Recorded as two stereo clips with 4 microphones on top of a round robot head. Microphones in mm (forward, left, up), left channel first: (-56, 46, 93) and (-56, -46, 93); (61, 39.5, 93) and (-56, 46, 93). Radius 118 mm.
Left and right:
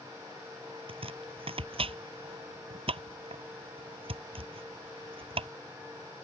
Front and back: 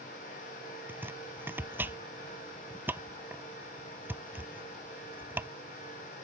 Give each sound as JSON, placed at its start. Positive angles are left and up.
{"t": 0.9, "sound": "chopping", "azimuth_deg": -105}